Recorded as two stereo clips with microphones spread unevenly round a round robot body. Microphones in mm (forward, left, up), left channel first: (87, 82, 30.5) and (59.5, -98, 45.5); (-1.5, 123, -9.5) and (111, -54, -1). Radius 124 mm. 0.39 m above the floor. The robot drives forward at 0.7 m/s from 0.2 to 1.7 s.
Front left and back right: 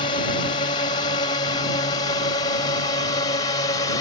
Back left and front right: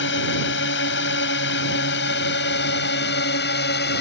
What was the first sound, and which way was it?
A drone, 140° left.